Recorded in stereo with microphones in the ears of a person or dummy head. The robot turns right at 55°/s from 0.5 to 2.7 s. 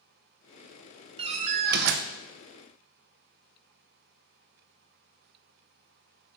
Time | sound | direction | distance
1.2 | a door slam | 145° right | 0.7 m